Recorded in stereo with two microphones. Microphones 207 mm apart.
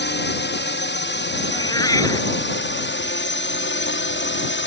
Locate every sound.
0.0 s a drone: 55° left (ahead or behind); by 4.7 s 60° left (ahead or behind)
1.5 s a cat meowing: 15° left (ahead or behind)